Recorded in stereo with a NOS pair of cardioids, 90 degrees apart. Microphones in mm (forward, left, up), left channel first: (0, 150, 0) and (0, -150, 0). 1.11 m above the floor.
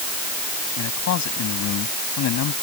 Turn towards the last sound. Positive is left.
turn(degrees=80)